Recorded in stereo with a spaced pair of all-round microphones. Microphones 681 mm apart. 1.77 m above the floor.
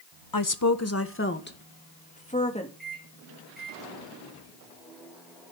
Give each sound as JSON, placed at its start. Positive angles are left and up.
{"t": 0.3, "sound": "a woman speaking", "side_deg": 35, "distance_m": 1.1}
{"t": 2.8, "sound": "a microwave", "side_deg": 0, "distance_m": 7.0}